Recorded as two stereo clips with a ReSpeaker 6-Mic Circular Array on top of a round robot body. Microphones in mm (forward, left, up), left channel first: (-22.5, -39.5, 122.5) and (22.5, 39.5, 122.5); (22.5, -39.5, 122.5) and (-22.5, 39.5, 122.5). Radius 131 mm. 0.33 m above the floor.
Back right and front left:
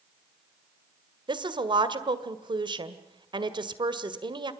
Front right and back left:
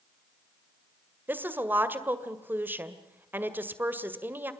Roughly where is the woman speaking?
Ahead left.